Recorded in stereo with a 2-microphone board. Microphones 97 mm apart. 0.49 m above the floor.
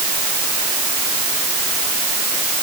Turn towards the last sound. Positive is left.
No sound to turn to.